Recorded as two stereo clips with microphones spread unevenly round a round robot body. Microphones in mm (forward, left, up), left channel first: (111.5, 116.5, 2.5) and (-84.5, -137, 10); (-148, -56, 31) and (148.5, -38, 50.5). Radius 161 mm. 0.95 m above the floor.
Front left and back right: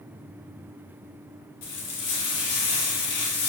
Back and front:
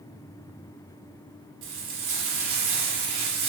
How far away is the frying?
About 1.6 m.